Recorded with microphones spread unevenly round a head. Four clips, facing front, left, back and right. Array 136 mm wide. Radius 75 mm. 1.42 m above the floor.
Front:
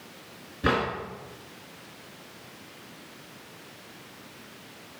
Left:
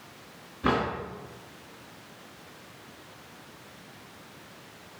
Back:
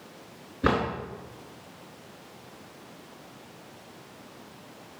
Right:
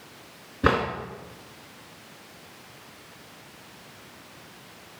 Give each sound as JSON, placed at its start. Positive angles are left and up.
{"t": 0.6, "sound": "a drawer", "azimuth_deg": -110, "distance_m": 3.0}